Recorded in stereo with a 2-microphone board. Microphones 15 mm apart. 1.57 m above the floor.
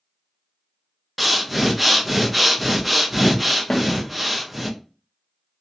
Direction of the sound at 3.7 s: 40° left (ahead or behind).